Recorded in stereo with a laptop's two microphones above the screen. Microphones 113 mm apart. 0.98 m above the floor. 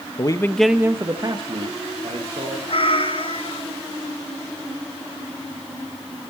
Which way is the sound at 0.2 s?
40° left (ahead or behind).